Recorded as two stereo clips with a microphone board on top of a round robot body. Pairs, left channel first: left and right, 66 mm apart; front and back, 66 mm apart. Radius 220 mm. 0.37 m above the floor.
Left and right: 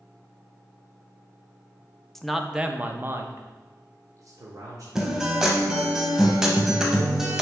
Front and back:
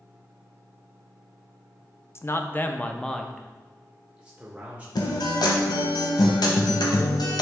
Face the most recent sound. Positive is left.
turn(degrees=-10)